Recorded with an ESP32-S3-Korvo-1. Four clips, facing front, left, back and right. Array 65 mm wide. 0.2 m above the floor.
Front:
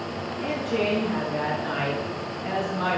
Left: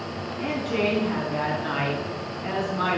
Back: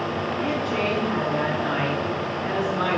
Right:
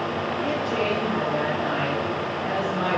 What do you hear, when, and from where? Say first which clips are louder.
0.4 s a woman speaking: left 2 dB, front 1 dB; 130° left, 1.9 m